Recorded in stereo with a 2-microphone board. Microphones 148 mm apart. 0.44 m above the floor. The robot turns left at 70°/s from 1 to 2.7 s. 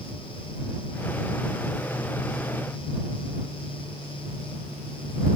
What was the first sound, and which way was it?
Only background noise.